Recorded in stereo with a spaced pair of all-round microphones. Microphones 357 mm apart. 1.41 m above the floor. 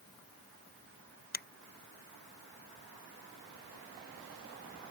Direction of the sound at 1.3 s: 25° left (ahead or behind).